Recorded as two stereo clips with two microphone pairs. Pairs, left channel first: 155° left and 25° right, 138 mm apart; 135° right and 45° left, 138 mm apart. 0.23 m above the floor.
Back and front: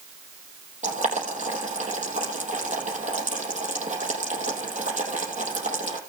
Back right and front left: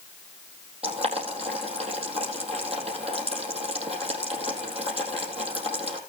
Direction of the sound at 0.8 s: 5° left.